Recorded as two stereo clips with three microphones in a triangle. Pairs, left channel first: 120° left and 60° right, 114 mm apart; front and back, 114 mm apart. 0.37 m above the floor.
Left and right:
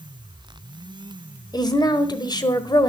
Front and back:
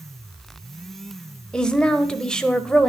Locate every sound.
1.5 s a woman speaking: 80° left, 1.3 m